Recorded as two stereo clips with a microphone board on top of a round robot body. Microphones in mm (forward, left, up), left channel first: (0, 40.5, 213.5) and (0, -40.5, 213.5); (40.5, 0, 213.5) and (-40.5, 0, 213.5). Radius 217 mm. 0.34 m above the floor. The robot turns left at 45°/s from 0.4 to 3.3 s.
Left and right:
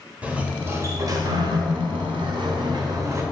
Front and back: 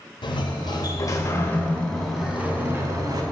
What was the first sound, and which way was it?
A sliding door, 15° right.